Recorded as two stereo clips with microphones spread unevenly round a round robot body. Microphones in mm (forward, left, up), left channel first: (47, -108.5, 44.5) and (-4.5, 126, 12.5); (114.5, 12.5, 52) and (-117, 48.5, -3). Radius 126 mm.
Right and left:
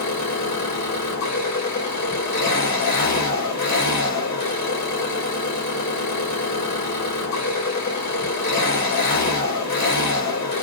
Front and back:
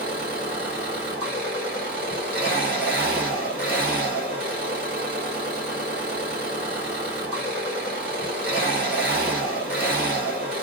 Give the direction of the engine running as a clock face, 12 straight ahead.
4 o'clock.